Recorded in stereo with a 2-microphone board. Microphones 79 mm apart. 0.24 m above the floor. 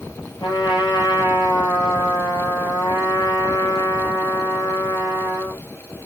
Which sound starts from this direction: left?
A trumpet, at 0.4 s.